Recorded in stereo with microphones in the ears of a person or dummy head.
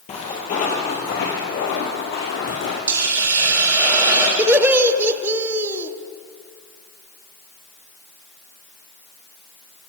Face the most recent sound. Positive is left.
turn(degrees=-5)  # may be behind; listen again after turning